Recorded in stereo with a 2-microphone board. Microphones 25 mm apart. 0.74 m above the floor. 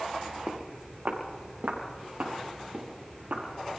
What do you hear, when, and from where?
0.5 s footsteps: 55° right (ahead or behind), 2.5 m; by 3.4 s 85° right, 6 m